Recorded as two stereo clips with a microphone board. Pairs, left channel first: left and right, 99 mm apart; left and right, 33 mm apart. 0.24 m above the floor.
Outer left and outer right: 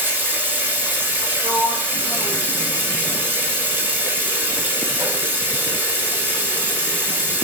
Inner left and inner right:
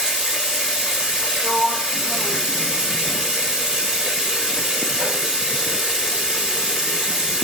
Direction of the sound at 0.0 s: 20° right (ahead or behind).